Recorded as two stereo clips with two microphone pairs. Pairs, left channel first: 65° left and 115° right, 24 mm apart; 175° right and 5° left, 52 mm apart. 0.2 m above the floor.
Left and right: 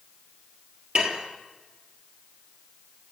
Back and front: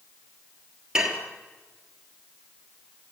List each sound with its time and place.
0.9 s dishes clattering: 70° right, 3 m